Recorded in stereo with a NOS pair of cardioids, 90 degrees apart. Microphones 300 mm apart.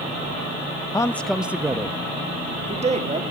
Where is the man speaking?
15° left, 0.7 m; by 3.2 s 25° right, 1.8 m.